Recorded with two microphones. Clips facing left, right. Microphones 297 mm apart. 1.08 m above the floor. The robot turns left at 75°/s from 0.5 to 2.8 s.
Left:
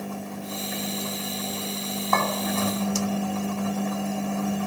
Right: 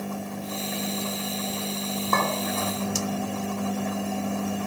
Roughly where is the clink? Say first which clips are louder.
Left 1 dB; right.